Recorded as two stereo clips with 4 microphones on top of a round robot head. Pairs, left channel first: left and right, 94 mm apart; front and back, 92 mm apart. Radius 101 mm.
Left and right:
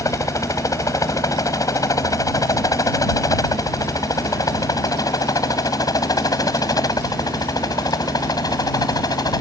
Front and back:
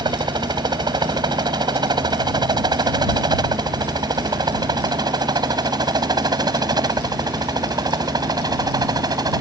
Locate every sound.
0.0 s a helicopter: 145° left; by 9.4 s 135° left